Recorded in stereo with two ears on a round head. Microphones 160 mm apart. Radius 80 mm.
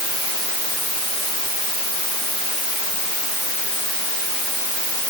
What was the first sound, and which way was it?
Only background noise.